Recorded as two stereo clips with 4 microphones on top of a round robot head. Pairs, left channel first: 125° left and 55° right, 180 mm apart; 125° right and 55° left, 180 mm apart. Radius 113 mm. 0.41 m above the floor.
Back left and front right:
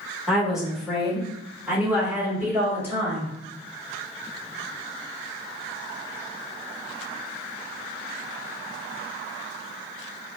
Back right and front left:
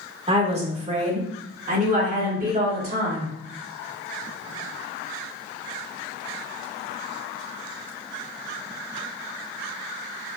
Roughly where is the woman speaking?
Ahead left.